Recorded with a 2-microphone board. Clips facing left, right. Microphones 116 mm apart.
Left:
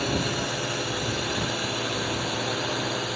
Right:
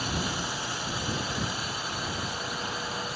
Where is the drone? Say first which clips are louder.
Left 5 dB; 65° left (ahead or behind); by 3.2 s 80° left.